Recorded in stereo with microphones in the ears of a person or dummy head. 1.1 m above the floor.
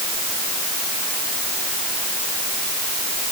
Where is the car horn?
I don't hear a car horn.